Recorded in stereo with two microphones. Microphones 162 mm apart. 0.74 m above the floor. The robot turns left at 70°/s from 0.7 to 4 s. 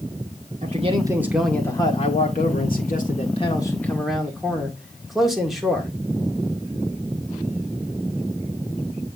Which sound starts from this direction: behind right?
A man speaking, at 0.6 s.